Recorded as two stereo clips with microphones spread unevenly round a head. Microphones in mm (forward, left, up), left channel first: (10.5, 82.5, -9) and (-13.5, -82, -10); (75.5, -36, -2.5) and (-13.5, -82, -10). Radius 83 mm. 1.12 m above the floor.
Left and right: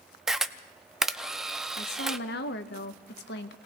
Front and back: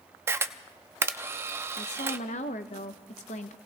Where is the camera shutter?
Straight behind, 0.5 m.